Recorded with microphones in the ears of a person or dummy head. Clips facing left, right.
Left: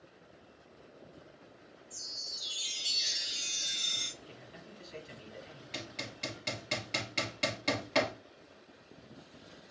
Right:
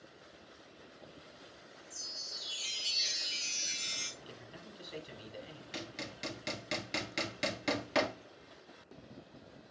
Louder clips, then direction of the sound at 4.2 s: Even; 45° right (ahead or behind).